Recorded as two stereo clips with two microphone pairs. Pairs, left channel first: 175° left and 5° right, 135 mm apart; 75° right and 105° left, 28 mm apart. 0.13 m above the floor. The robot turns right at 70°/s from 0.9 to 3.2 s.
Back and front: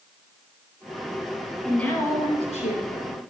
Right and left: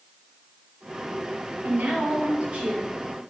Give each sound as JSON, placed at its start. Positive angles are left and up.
{"t": 1.6, "sound": "a woman speaking", "azimuth_deg": 85, "distance_m": 2.5}